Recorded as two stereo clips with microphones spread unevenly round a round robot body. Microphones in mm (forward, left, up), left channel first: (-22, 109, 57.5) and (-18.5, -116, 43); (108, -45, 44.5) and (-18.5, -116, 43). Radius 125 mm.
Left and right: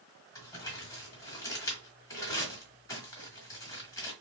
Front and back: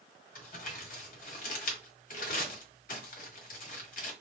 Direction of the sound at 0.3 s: 15° left.